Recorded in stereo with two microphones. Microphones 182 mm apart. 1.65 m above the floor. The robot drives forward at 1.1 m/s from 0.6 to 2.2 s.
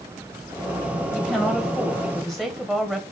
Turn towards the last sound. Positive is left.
turn(degrees=0)  # may be behind; listen again after turning